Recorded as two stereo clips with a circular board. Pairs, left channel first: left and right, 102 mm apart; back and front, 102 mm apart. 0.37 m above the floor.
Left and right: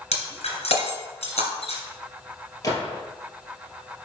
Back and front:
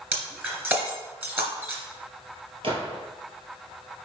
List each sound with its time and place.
0.1 s breaking glass: 75° left, 2.5 m
2.6 s a gunshot: 35° left, 2.5 m